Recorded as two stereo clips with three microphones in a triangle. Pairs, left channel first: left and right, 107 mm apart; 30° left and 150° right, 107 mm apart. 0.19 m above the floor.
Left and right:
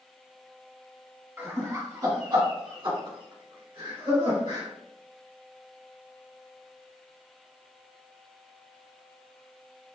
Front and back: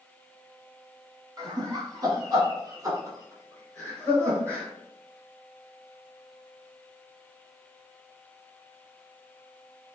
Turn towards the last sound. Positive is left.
turn(degrees=-90)